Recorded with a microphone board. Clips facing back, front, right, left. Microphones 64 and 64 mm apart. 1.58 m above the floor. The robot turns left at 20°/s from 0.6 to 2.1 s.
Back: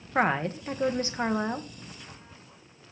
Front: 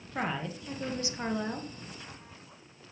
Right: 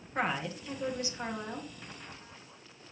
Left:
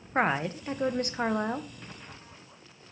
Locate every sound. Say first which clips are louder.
0.1 s a woman speaking: back 8 dB, left 6 dB; 140° left, 1.5 m; by 1.7 s 115° left, 1.5 m